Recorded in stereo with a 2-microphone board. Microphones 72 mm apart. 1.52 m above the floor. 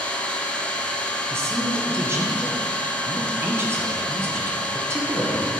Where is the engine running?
15° left (ahead or behind), 0.8 m.